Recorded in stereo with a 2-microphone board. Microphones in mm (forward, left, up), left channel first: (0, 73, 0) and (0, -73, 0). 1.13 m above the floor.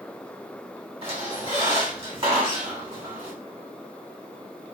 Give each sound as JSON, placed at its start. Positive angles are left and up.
{"t": 1.0, "sound": "a squeak", "side_deg": -35, "distance_m": 1.2}